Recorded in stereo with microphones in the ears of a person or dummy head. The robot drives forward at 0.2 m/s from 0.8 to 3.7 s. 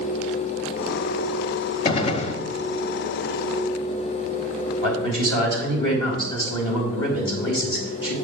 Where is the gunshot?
30° left (ahead or behind), 0.6 m; by 2.4 s 35° left (ahead or behind), 0.5 m.